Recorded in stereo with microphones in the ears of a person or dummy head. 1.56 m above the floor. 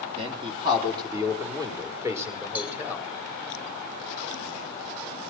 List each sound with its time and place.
0.2 s a man speaking: 30° right (ahead or behind), 3 m; by 3.1 s 10° right (ahead or behind), 4.5 m
2.5 s a cowbell: 10° right (ahead or behind), 3.5 m